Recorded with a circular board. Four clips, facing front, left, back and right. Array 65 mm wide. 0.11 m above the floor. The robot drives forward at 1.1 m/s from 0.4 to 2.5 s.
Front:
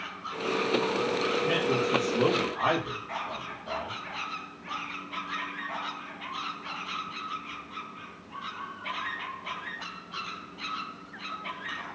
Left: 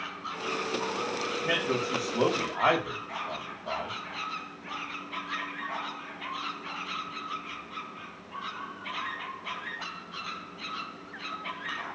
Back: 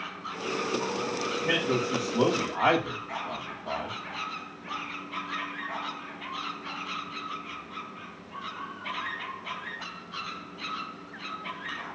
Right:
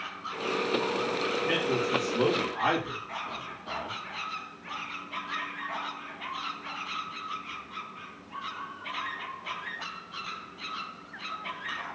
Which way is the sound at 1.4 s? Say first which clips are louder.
Left 1 dB, back 2 dB; 125° left.